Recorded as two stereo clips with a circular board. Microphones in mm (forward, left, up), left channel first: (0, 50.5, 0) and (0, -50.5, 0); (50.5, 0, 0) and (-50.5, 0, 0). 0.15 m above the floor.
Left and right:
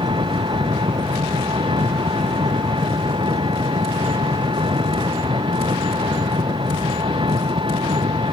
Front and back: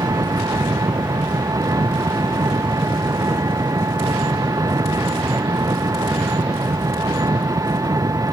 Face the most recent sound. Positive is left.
turn(degrees=-125)